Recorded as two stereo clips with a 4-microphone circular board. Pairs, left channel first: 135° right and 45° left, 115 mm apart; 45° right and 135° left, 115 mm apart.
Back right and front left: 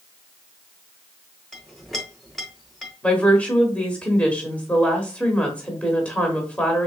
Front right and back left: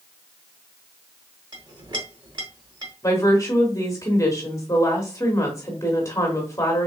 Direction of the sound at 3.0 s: 70° right.